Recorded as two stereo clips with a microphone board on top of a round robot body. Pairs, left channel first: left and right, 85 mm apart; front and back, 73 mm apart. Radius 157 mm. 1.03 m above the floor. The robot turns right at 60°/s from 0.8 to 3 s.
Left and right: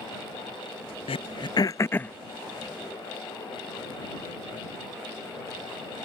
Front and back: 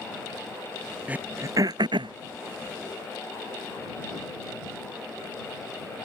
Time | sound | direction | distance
1.1 | throat clearing | 105° left | ?